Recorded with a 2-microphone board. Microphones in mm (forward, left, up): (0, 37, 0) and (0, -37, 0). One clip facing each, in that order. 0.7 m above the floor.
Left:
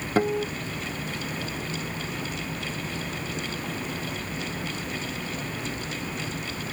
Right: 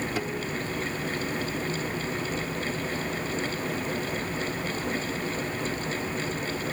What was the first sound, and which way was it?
A guitar, 40° left (ahead or behind).